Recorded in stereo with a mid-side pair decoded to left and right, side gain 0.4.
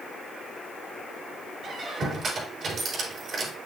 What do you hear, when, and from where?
1.6 s a squeak: 60° right, 5 m